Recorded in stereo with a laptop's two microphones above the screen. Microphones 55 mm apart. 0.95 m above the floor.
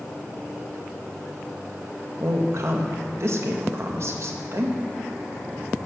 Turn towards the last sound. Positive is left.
turn(degrees=-50)  # may be behind; listen again after turning